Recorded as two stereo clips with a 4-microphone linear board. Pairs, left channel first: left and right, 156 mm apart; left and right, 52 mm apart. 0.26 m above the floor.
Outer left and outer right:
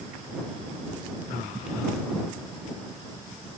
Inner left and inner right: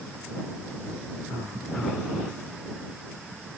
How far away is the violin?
I don't hear a violin.